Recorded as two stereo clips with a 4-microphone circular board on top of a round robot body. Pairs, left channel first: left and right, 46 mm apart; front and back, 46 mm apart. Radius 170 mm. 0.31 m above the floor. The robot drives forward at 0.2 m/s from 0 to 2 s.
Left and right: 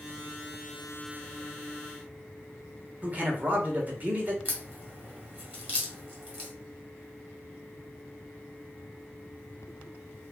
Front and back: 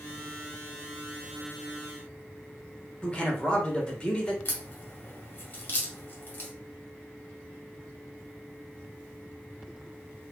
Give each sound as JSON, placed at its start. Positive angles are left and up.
{"t": 3.0, "sound": "a man speaking", "azimuth_deg": -55, "distance_m": 1.1}
{"t": 4.5, "sound": "a crack", "azimuth_deg": -40, "distance_m": 1.4}